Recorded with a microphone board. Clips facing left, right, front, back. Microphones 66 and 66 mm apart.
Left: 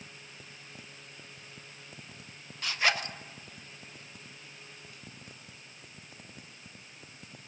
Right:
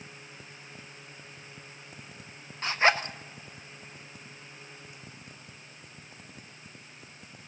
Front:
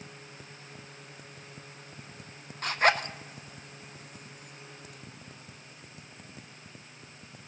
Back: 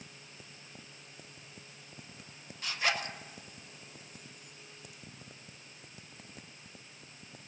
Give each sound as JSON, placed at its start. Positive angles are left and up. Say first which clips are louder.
{"t": 2.6, "sound": "a zipper", "louder": "right 5 dB, front 8 dB", "azimuth_deg": -35, "distance_m": 0.5}